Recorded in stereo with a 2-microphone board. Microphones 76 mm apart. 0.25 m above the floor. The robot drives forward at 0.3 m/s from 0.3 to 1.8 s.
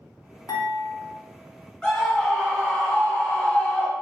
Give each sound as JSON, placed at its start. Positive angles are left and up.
{"t": 0.5, "sound": "dishes clattering", "side_deg": 60, "distance_m": 1.2}
{"t": 1.8, "sound": "a scream", "side_deg": 15, "distance_m": 1.4}